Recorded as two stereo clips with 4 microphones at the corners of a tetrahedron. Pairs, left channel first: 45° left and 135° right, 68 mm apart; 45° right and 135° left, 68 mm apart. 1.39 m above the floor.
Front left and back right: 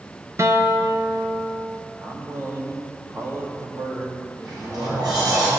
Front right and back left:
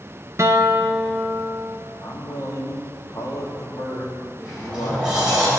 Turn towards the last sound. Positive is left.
turn(degrees=-145)